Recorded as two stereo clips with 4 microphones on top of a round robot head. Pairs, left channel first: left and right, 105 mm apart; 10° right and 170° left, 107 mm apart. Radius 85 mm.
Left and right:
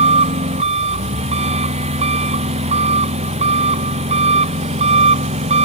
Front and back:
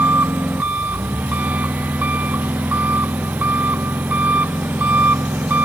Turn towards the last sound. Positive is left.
turn(degrees=-110)